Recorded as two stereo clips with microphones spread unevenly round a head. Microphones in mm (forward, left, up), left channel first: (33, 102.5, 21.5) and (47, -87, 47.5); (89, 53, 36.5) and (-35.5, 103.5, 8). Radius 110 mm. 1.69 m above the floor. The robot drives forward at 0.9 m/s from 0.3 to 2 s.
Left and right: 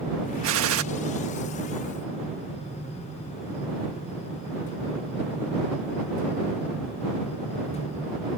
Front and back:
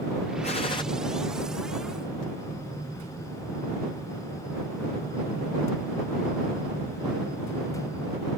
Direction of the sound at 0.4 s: 80° right.